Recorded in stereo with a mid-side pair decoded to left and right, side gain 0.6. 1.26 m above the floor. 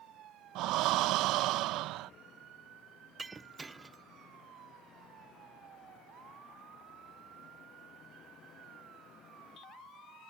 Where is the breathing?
65° right.